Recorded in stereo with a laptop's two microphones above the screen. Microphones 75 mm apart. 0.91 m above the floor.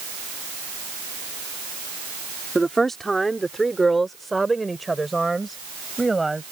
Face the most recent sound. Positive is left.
turn(degrees=0)  # may be behind; listen again after turning